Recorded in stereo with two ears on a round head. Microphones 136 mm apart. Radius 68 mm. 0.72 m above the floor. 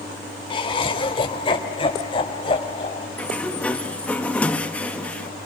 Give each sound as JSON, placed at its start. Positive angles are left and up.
{"t": 0.5, "sound": "laughter", "side_deg": 35, "distance_m": 3.5}
{"t": 3.2, "sound": "a sliding door", "side_deg": 10, "distance_m": 1.1}